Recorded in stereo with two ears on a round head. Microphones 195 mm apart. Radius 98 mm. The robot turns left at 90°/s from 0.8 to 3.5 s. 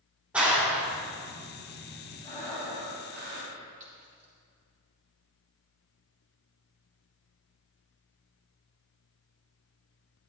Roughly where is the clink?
Right.